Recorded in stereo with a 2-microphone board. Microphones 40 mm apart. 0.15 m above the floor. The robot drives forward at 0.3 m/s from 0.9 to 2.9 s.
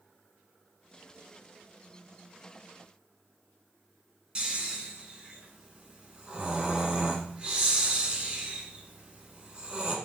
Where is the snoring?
25° right (ahead or behind), 1.2 m.